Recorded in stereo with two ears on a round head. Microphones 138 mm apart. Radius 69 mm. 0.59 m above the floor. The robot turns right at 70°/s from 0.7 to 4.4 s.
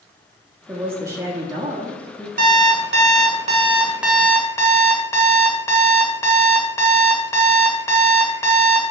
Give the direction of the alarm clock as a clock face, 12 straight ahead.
4 o'clock.